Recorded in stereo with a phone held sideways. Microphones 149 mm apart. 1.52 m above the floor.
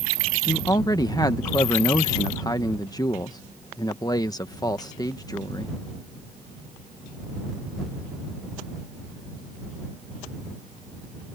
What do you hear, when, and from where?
0.5 s a man speaking: 25° left (ahead or behind)